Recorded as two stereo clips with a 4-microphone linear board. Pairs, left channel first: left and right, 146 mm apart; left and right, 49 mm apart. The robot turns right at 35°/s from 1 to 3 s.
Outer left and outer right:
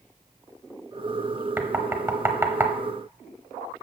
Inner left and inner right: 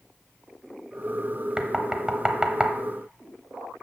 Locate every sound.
1.6 s knocking: 15° right (ahead or behind), 0.9 m; by 2.7 s 20° right (ahead or behind), 0.9 m